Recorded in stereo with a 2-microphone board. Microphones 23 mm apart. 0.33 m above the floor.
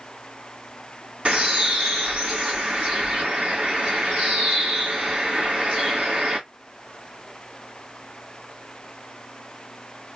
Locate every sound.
1.2 s a bird: 60° right (ahead or behind), 3 m